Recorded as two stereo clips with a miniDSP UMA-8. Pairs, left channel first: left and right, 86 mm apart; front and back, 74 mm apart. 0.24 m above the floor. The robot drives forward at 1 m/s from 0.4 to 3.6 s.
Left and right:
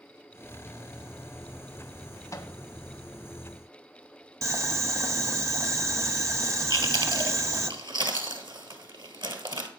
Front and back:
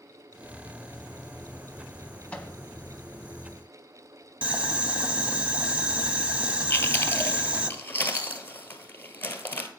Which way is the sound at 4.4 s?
115° right.